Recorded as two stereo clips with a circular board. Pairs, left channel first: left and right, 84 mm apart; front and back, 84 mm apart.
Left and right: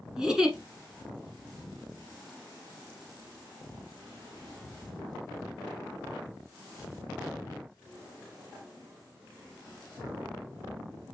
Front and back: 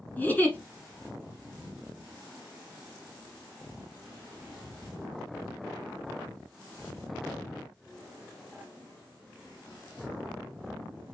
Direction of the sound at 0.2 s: 20° right.